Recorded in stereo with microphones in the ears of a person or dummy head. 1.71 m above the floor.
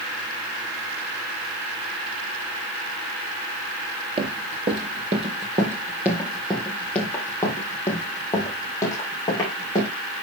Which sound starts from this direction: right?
Running footsteps, at 4.2 s.